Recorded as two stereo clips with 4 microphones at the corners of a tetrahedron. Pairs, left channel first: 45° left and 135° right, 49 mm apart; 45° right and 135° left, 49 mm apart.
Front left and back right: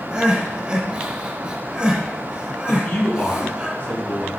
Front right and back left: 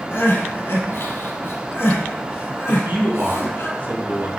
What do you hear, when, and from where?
0.1 s crying: 70° right, 1.6 m
2.7 s a man speaking: 100° left, 2.5 m